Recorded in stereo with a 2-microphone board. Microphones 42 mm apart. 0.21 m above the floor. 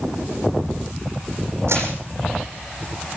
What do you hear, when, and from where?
1.7 s crushing: 75° right (ahead or behind), 9 m